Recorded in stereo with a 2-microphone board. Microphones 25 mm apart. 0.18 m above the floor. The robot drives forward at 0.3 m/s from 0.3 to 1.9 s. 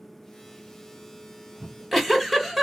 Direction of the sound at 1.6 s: 5° right (ahead or behind).